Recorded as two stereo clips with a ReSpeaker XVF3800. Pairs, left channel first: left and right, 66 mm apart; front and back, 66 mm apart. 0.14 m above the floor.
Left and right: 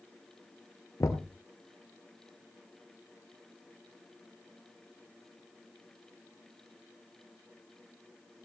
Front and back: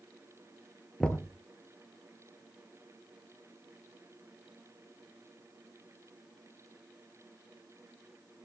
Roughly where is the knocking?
Left.